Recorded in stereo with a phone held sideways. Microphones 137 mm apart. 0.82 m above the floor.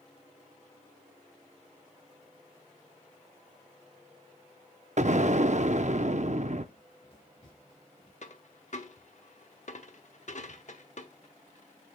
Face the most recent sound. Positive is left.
turn(degrees=60)  # may be behind; listen again after turning